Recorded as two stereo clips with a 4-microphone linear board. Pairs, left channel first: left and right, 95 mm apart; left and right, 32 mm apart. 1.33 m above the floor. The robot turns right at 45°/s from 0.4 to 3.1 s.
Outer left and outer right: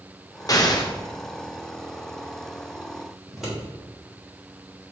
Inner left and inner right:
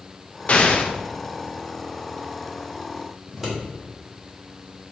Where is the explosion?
40° left (ahead or behind), 0.6 m; by 0.9 s 45° left (ahead or behind), 0.6 m.